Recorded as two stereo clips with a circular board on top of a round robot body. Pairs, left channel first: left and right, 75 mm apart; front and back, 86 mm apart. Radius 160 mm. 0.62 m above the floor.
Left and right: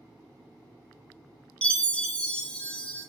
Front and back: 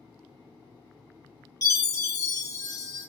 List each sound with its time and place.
1.6 s a chime: 25° left, 1.4 m